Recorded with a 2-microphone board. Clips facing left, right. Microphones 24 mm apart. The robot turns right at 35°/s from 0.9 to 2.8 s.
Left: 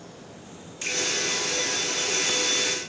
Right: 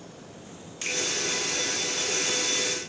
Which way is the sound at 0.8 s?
20° right (ahead or behind).